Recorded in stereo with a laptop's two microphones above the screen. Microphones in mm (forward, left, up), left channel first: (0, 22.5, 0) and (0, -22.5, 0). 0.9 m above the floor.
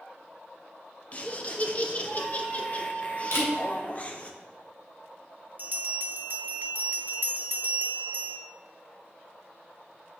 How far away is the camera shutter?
About 1.5 m.